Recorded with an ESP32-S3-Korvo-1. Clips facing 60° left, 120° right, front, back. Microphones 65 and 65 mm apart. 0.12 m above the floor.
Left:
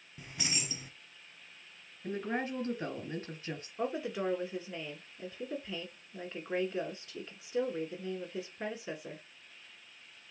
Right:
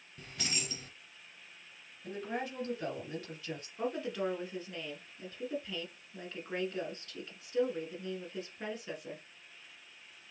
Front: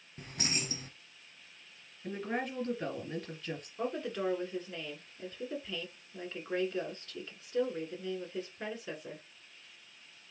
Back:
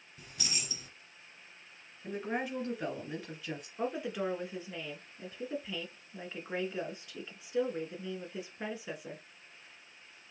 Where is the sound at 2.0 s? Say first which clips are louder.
Left 3 dB, even; 95° left, 2.0 m.